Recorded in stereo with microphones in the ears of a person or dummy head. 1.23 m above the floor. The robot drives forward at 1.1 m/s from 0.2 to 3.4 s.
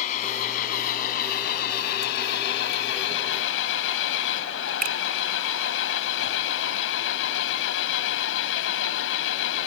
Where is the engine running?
45° left (ahead or behind); by 9.7 s 75° left (ahead or behind).